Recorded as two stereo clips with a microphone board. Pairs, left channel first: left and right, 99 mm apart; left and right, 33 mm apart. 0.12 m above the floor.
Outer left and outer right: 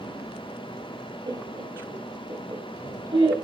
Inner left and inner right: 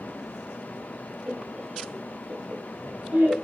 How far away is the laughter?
About 2 m.